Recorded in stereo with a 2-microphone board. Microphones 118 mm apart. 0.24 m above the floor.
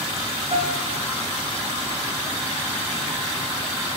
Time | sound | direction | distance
0.5 | a piano | 60° right (ahead or behind) | 6.5 m